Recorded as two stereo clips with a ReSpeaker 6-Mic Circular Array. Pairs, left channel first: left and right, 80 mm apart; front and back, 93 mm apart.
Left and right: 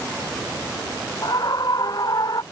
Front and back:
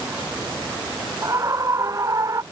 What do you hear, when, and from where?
1.2 s a scream: 125° left